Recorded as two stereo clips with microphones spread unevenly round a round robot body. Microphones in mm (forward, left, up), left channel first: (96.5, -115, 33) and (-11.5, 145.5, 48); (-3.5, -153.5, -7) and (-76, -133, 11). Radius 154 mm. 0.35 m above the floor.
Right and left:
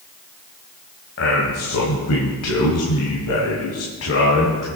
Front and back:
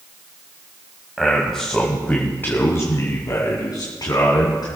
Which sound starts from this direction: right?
A man speaking, at 1.2 s.